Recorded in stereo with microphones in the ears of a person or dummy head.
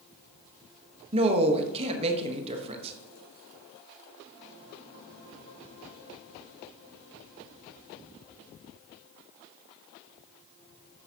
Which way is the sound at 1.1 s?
35° right (ahead or behind).